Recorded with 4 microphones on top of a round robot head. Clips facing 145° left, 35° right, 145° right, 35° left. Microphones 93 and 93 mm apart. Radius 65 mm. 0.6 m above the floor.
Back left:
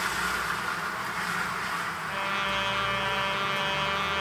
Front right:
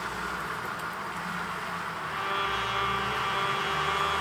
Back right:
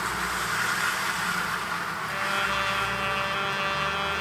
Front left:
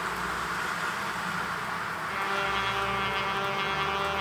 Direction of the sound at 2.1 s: 160° left.